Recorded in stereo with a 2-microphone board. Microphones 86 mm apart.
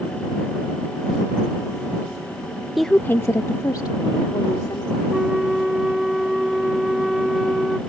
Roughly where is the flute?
Centre.